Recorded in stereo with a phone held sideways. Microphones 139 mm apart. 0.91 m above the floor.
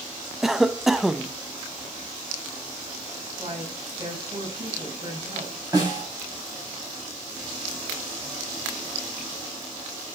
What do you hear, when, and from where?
0.4 s a cough: 5° right (ahead or behind), 0.6 m
3.4 s a woman speaking: 35° right (ahead or behind), 5 m
5.7 s a snare drum: 25° right (ahead or behind), 6 m